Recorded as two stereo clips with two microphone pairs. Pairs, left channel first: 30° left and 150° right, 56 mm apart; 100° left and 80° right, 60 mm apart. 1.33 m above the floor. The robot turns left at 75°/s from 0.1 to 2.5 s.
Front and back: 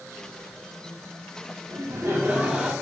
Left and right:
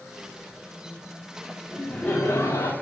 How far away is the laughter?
About 3 m.